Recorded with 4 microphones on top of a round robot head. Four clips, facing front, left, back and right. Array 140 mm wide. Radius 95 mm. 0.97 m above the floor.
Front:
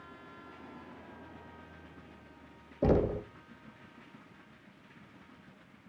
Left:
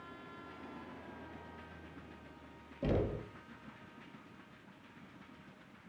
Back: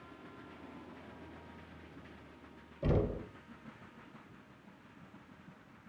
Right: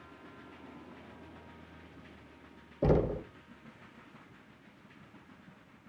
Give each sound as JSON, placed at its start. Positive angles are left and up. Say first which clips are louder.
{"t": 2.8, "sound": "knocking", "louder": "right 7 dB, front 6 dB", "azimuth_deg": -35, "distance_m": 0.8}